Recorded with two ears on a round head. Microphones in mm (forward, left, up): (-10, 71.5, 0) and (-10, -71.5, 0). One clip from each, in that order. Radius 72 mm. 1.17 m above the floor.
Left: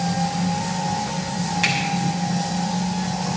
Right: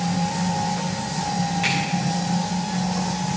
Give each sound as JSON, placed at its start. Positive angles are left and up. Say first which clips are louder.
{"t": 1.6, "sound": "a finger snap", "louder": "left 3 dB", "side_deg": 50, "distance_m": 6.0}